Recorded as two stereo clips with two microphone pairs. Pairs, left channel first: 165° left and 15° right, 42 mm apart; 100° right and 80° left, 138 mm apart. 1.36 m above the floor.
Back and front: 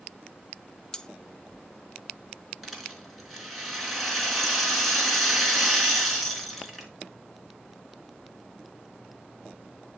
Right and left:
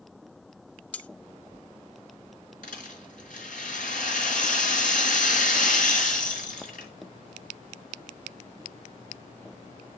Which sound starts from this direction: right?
A rattle, at 2.6 s.